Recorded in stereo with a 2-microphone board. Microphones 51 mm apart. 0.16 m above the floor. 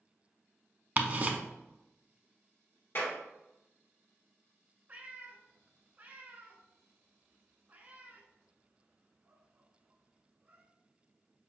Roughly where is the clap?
Left.